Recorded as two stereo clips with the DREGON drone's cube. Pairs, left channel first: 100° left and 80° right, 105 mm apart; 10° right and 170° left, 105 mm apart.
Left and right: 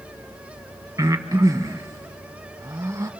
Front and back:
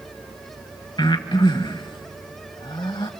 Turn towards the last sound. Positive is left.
turn(degrees=-35)